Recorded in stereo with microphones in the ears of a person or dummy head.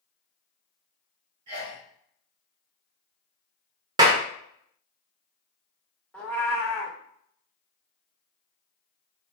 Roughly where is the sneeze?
Right.